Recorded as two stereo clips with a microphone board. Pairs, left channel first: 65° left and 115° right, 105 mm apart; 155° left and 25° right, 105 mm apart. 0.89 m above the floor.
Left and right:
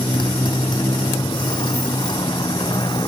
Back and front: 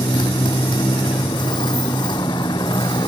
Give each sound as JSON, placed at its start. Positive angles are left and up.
{"t": 0.0, "sound": "a motorcycle", "azimuth_deg": 115}